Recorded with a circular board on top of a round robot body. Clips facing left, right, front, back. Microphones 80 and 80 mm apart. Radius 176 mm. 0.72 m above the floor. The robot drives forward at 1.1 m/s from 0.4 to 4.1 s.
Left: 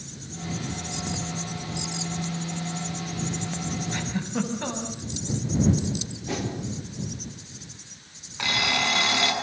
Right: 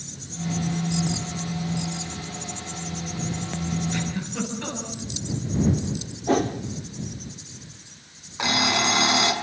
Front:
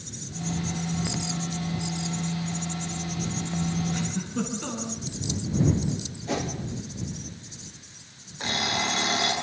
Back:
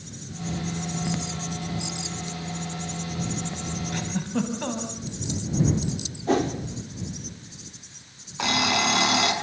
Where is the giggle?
150° left, 6 m.